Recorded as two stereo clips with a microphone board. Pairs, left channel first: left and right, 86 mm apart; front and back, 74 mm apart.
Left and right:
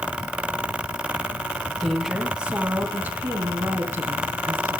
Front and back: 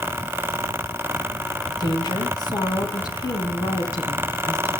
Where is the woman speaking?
Straight ahead, 2.5 m; by 4.8 s 35° right, 5.5 m.